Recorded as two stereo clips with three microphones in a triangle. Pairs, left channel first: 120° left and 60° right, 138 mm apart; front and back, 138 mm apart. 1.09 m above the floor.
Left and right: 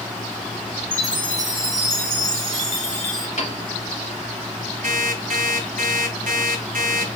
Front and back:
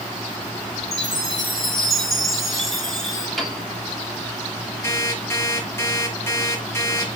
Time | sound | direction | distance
0.9 | a chime | 85° left | 3 m
3.4 | a piano | 90° left | 3 m
4.8 | an alarm clock | 70° right | 5 m